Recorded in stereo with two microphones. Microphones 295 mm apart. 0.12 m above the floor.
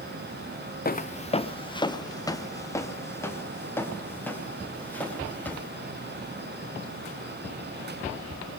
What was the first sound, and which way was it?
Footsteps, 30° left (ahead or behind).